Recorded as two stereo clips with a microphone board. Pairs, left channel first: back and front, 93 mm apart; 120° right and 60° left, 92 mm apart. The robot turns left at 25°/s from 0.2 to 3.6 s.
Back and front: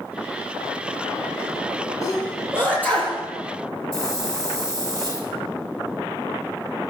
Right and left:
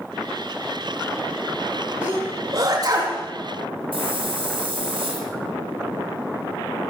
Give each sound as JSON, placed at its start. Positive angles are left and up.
{"t": 2.0, "sound": "a sneeze", "azimuth_deg": 125, "distance_m": 9.0}
{"t": 3.9, "sound": "a hiss", "azimuth_deg": 50, "distance_m": 5.0}